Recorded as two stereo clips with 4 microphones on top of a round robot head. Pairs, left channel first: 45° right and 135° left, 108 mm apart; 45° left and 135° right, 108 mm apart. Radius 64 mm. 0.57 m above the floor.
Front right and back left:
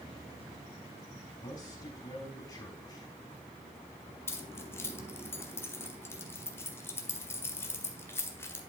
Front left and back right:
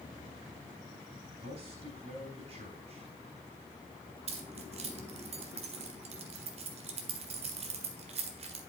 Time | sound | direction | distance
1.4 | a man speaking | 100° right | 4 m
4.3 | keys jangling | 115° right | 1.7 m